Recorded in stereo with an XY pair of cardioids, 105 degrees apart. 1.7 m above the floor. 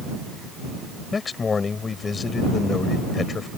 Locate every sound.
1.1 s a man speaking: 35° left